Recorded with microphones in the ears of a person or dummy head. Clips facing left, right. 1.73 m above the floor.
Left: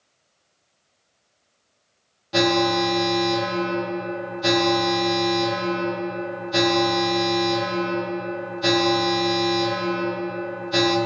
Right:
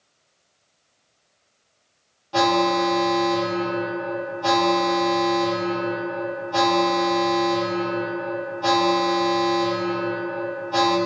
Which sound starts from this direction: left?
An alarm, at 2.3 s.